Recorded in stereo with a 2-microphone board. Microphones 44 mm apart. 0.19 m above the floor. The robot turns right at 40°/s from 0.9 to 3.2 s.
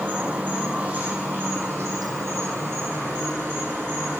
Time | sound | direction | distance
0.0 | an insect | 145° right | 1.9 m